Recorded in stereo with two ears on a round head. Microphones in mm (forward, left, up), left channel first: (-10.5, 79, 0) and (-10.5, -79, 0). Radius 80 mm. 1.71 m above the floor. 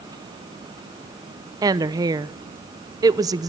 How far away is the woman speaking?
About 0.8 m.